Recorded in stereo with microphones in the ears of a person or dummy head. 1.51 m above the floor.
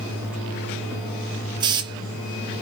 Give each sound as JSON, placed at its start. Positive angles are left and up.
{"t": 1.6, "sound": "a hiss", "side_deg": -25, "distance_m": 1.2}